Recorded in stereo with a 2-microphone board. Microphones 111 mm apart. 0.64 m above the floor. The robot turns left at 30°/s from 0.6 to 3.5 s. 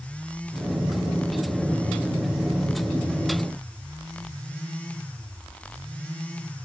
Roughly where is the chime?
No chime in this recording.